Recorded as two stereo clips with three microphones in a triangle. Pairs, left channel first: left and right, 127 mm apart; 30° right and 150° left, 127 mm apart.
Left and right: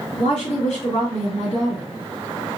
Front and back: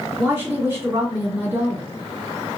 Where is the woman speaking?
90° left, 2 m.